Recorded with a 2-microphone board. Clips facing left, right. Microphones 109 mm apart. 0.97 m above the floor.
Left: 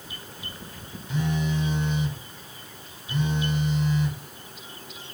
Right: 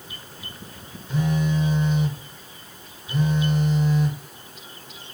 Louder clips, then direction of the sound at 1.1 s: Right 3 dB; 50° right (ahead or behind).